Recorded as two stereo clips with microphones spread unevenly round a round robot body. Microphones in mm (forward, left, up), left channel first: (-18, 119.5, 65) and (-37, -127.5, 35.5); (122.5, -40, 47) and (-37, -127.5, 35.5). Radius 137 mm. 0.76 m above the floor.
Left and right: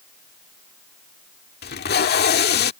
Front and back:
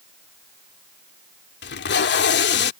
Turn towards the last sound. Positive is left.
turn(degrees=35)